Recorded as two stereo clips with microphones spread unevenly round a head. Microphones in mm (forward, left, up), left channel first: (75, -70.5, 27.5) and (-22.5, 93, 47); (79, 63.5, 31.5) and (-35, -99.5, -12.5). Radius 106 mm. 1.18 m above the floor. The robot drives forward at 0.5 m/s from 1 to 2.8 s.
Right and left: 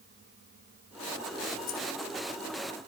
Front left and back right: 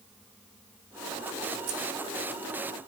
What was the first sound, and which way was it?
Keys jangling, 110° right.